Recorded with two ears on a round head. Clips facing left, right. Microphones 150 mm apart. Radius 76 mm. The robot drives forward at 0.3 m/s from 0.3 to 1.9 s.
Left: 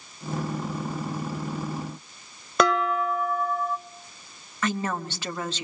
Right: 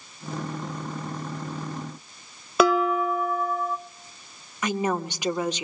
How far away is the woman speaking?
About 0.9 m.